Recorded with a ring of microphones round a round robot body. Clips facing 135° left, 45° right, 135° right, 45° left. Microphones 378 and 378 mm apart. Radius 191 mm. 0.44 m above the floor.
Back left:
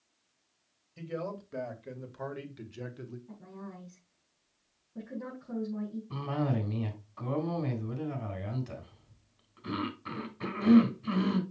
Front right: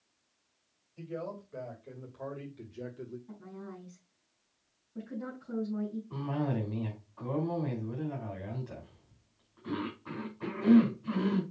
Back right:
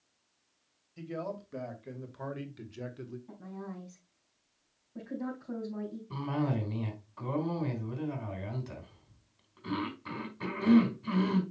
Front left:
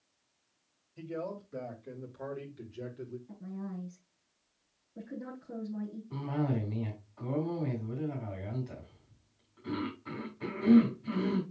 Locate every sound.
1.0 s a man speaking: 160° left, 2.5 m; by 3.2 s straight behind, 1.4 m
3.3 s a woman speaking: 135° right, 5 m
6.1 s a cough: 175° left, 4 m